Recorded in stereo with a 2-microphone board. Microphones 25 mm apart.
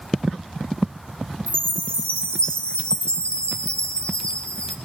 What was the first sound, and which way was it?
A chime, 50° left (ahead or behind).